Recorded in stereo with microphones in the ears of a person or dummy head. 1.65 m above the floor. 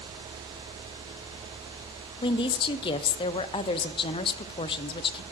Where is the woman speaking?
30° left (ahead or behind), 0.6 m.